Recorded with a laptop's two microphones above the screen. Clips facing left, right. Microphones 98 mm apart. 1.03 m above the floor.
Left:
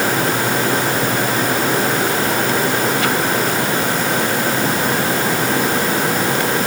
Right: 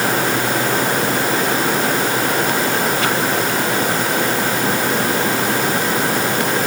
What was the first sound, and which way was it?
Only background noise.